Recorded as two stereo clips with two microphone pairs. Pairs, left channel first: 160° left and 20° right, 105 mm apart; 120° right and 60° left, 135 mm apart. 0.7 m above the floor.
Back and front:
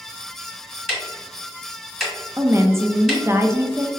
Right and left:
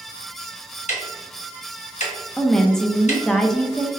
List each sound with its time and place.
0.9 s ticking: 110° right, 1.5 m
2.4 s a woman speaking: 40° right, 0.5 m